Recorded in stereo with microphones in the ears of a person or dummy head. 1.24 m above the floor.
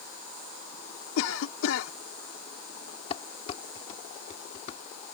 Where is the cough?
80° left.